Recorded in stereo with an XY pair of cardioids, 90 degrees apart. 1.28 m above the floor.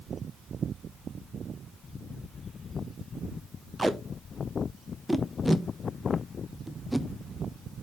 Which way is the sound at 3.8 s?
Straight ahead.